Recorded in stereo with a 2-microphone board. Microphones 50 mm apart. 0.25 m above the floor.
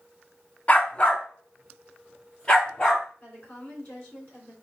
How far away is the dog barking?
About 0.6 m.